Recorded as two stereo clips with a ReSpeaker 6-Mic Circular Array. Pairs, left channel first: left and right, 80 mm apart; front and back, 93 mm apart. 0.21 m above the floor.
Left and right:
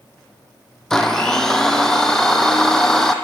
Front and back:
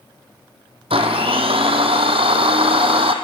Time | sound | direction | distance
0.9 | a blender | 175° left | 2.5 m